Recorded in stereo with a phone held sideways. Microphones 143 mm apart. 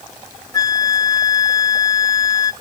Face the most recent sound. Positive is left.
turn(degrees=25)  # may be behind; listen again after turning